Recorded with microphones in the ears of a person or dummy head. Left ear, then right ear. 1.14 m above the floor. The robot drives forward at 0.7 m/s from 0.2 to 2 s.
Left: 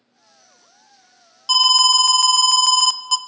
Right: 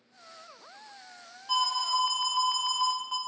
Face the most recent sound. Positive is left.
turn(degrees=90)